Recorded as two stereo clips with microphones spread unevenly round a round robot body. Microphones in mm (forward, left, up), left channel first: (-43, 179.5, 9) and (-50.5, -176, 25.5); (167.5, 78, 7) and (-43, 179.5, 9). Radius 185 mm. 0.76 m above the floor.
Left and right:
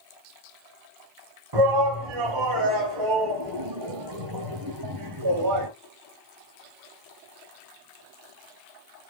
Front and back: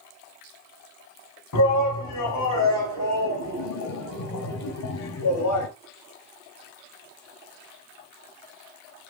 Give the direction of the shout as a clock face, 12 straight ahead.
2 o'clock.